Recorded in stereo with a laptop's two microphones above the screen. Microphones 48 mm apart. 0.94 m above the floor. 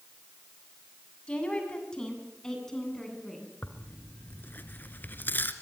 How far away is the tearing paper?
About 1.9 m.